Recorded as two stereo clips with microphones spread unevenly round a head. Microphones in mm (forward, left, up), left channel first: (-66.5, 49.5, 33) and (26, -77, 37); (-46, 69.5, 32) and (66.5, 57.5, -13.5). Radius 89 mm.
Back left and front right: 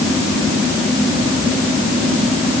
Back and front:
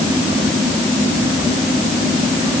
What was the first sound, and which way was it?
Only background noise.